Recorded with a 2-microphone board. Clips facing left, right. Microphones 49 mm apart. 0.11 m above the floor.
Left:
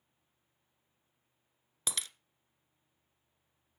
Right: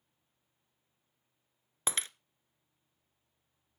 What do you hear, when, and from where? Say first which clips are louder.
1.9 s breaking glass: right 4 dB; 35° right (ahead or behind), 0.6 m